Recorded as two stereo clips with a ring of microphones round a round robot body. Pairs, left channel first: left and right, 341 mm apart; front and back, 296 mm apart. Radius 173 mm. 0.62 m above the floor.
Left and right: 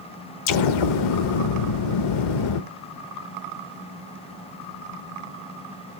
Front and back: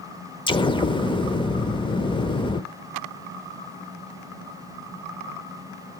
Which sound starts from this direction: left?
An explosion, at 0.5 s.